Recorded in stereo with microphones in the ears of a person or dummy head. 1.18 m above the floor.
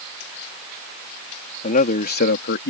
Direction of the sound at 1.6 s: 45° left (ahead or behind).